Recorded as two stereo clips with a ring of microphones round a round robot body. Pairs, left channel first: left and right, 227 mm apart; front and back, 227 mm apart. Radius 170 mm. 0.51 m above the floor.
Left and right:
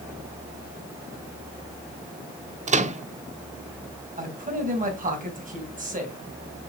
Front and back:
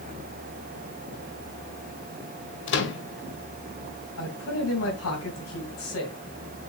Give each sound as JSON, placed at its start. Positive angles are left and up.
{"t": 2.7, "sound": "a microwave", "azimuth_deg": -30, "distance_m": 0.9}
{"t": 4.2, "sound": "a man speaking", "azimuth_deg": -35, "distance_m": 3.0}